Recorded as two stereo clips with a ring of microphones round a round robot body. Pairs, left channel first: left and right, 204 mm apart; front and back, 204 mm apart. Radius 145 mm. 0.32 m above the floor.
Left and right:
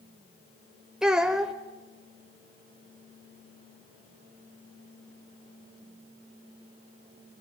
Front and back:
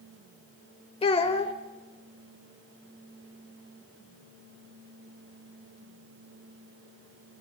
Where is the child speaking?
5° right, 0.9 m.